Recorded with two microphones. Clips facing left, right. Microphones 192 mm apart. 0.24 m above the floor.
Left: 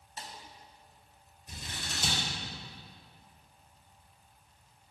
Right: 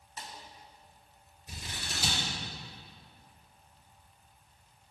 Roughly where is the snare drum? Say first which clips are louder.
Even; left.